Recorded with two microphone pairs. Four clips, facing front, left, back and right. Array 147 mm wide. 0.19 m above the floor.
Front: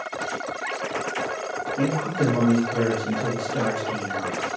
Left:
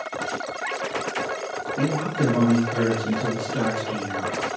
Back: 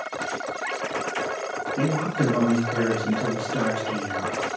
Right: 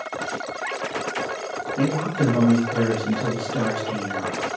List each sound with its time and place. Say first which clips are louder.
1.8 s a man speaking: right 1 dB, even; 160° right, 1.9 m